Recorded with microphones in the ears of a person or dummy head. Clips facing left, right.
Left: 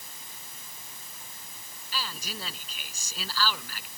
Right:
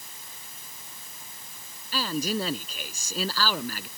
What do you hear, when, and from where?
1.9 s a man speaking: 45° right (ahead or behind)